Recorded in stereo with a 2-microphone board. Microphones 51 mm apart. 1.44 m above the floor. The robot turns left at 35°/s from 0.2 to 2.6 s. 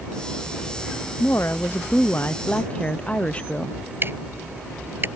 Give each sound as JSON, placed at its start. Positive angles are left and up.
{"t": 1.2, "sound": "a woman speaking", "azimuth_deg": 80}
{"t": 4.0, "sound": "ticking", "side_deg": -45}